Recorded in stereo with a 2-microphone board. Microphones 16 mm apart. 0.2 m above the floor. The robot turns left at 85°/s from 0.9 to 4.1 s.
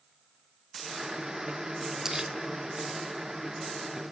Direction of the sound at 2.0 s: 35° right (ahead or behind).